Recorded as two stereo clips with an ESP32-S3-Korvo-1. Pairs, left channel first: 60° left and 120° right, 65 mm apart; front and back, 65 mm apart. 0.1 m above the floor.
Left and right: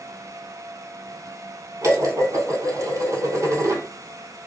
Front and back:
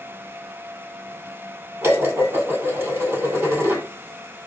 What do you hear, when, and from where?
1.8 s dishes clattering: 140° right, 1.4 m